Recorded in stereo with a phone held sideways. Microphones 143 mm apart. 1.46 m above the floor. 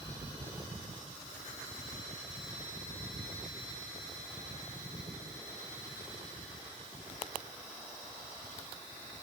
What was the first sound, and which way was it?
Only background noise.